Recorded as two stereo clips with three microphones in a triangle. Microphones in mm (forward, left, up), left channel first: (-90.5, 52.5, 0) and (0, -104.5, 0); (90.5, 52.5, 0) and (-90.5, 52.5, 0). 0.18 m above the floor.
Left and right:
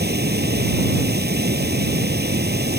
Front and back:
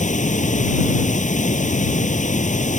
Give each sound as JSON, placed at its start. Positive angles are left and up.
{"t": 0.0, "sound": "running water", "azimuth_deg": -45}